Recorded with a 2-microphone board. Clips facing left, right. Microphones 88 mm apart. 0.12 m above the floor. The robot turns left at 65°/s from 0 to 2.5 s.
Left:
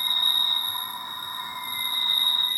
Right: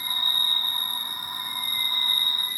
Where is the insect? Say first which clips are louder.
Left 1 dB; 5° right; by 2.6 s 170° right.